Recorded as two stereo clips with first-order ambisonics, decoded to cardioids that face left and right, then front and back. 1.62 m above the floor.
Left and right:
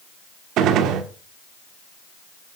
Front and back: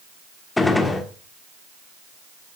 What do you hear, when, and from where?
0.6 s a gunshot: 80° right, 1.6 m